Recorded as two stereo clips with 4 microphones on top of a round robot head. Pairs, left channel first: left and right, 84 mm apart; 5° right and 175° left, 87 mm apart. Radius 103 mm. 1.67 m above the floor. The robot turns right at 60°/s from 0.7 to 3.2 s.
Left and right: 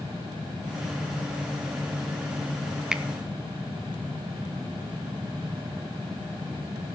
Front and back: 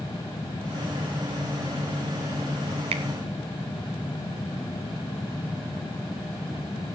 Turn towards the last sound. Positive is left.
turn(degrees=-155)